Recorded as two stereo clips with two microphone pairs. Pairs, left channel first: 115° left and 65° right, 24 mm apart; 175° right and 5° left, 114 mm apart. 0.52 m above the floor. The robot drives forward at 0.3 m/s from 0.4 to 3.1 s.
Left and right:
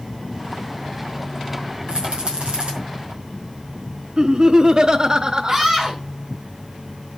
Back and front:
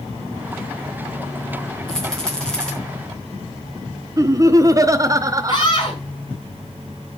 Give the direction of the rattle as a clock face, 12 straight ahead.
3 o'clock.